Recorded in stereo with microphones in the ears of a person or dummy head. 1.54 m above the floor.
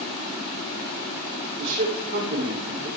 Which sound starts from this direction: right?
A man speaking, at 1.6 s.